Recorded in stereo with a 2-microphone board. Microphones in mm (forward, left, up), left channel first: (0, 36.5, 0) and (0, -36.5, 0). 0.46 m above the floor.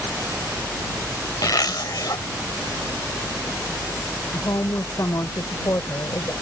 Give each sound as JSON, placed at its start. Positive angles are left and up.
{"t": 1.4, "sound": "a zipper", "side_deg": 65}
{"t": 4.3, "sound": "a woman speaking", "side_deg": 50}